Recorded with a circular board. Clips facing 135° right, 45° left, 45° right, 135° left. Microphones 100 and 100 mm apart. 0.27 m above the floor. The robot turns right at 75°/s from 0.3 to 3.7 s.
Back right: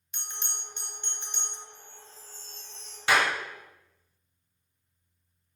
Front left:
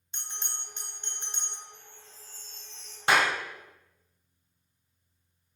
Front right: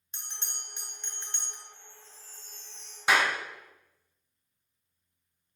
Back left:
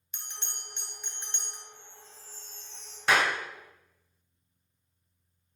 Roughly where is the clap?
Ahead left.